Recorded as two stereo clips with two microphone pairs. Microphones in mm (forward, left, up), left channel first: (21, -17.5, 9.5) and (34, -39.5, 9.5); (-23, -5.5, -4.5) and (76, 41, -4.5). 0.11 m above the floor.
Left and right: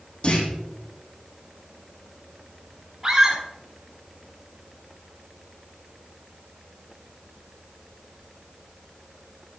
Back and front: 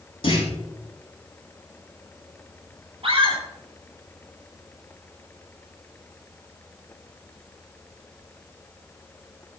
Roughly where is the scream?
Ahead.